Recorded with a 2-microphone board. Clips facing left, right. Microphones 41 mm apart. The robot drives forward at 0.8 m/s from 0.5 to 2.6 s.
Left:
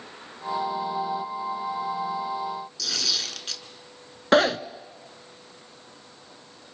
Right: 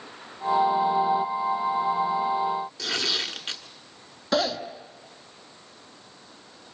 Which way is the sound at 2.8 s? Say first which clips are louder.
Right 2 dB; 30° right (ahead or behind).